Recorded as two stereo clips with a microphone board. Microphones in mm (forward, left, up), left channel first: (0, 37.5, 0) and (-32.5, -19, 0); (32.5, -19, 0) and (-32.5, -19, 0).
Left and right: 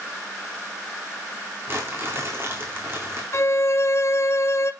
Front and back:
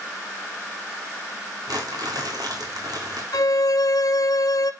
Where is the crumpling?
170° right, 3.5 m.